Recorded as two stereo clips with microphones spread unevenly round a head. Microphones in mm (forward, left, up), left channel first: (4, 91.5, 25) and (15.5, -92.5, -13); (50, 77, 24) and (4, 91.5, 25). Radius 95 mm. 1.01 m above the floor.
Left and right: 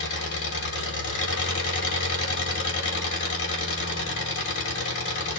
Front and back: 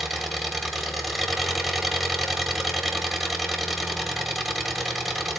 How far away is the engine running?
About 2 m.